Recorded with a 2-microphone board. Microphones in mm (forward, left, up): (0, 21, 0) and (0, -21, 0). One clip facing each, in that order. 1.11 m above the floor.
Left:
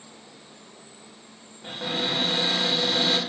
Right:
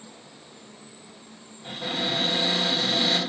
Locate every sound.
1.6 s a cupboard door: 55° left (ahead or behind), 1.3 m